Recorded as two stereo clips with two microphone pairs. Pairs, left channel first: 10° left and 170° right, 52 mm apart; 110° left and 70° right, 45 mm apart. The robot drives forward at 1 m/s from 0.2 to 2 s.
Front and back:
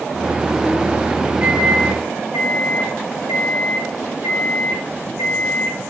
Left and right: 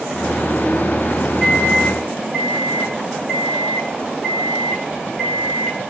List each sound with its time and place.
1.4 s a microwave: 155° right, 0.8 m; by 5.8 s 170° right, 1.2 m